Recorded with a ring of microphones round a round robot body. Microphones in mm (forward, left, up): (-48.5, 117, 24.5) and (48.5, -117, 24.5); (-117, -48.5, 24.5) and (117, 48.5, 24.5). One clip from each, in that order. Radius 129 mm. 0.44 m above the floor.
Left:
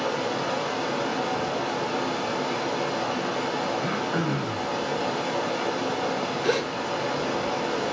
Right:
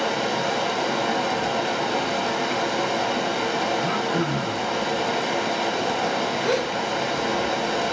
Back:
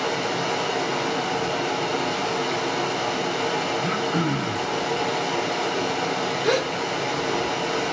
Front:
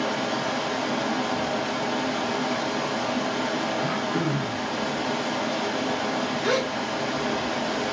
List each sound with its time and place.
0.0 s running water: 90° right, 1.0 m
3.8 s throat clearing: 130° right, 2.0 m
6.4 s a gasp: 165° right, 2 m